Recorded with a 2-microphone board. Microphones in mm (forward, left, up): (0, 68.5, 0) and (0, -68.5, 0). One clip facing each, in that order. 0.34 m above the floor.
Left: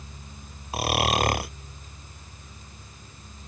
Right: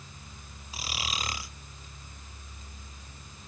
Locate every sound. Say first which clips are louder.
0.7 s snoring: left 14 dB; 65° left (ahead or behind)